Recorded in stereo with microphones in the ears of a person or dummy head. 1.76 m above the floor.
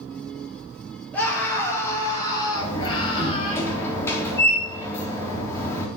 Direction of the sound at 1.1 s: 10° left (ahead or behind).